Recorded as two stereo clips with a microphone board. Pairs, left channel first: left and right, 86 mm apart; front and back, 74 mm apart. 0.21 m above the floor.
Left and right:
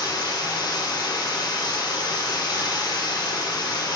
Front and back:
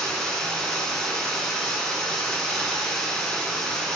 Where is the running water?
80° left, 0.8 m.